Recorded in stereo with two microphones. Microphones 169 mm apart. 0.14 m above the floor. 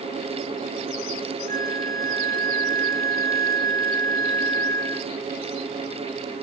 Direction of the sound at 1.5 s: 20° left (ahead or behind).